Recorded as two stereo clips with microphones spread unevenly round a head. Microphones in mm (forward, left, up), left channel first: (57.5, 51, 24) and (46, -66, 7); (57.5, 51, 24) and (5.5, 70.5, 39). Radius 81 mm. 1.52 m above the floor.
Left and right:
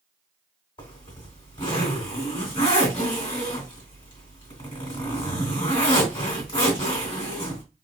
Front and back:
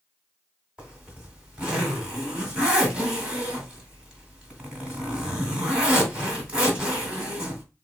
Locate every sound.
0.8 s a zipper: 105° left, 1.9 m